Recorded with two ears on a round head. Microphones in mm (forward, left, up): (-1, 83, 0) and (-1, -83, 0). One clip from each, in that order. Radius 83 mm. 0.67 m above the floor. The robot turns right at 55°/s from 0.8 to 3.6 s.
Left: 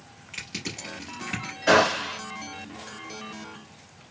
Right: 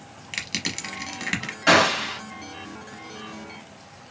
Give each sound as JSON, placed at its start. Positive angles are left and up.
{"t": 0.3, "sound": "crushing", "side_deg": -50, "distance_m": 0.9}
{"t": 1.7, "sound": "a gunshot", "side_deg": -50, "distance_m": 1.7}